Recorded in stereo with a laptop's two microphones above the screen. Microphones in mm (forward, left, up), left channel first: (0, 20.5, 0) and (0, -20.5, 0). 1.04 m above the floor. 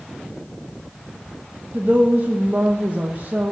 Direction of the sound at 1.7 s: 40° right (ahead or behind).